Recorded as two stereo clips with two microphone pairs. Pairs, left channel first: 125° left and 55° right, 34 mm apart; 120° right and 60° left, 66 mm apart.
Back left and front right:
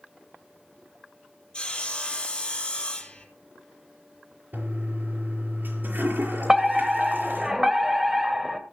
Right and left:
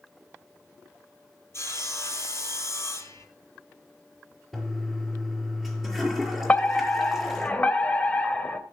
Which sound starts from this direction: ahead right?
A toilet flushing, at 4.5 s.